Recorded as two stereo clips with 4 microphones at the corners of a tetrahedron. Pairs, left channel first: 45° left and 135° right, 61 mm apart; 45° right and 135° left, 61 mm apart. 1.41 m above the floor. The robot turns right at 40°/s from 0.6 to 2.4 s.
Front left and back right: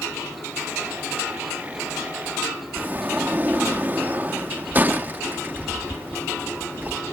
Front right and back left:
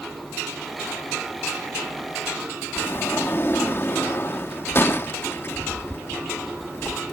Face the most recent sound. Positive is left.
turn(degrees=-85)